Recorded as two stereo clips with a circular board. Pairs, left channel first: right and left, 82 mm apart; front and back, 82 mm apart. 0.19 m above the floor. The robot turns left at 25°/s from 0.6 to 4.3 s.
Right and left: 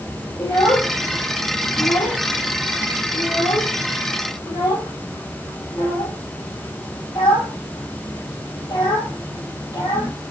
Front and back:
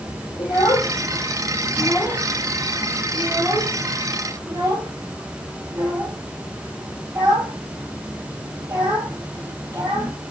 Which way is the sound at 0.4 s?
35° right.